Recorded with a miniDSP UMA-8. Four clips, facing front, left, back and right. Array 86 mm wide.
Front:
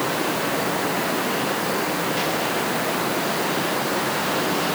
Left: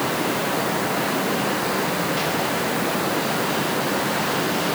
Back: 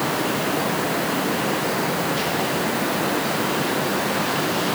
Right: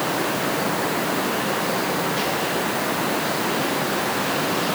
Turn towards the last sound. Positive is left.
No sound to turn to.